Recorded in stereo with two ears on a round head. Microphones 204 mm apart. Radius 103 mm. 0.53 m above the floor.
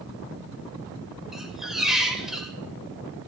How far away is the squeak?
About 1.0 m.